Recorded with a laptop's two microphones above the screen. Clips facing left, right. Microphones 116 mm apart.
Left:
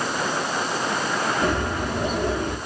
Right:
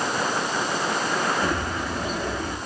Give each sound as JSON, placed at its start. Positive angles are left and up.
{"t": 1.4, "sound": "a bird", "side_deg": 60, "distance_m": 5.0}